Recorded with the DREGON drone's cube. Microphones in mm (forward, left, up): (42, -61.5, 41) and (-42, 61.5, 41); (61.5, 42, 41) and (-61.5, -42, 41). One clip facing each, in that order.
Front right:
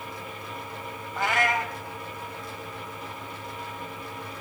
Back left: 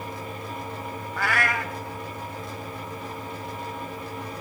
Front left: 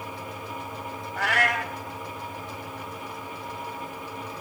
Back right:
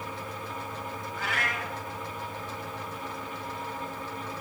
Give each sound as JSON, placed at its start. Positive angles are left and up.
{"t": 1.2, "sound": "a cat meowing", "azimuth_deg": 15, "distance_m": 1.2}